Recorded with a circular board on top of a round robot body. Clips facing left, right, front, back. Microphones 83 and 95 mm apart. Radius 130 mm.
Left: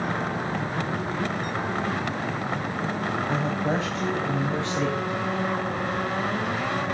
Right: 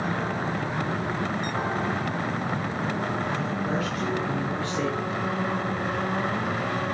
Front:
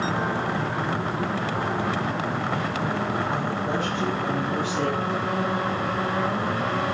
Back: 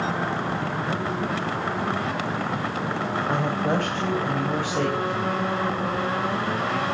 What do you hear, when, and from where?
3.3 s a woman speaking: 145° left, 4 m; by 5.5 s 165° left, 4.5 m